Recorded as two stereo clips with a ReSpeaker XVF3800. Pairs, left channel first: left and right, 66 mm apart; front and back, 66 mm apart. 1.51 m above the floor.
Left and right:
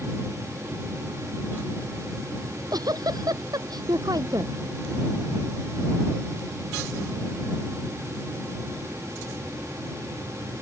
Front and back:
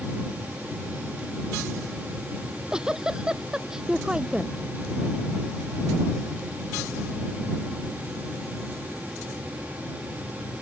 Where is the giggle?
100° right.